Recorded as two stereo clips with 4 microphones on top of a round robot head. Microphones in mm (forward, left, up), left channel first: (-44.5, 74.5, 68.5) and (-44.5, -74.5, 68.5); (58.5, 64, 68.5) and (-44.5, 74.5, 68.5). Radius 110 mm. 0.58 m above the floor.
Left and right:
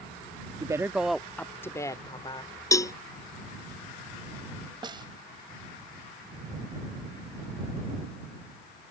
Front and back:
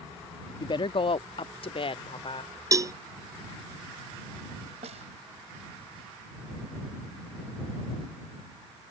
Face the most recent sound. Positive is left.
turn(degrees=-150)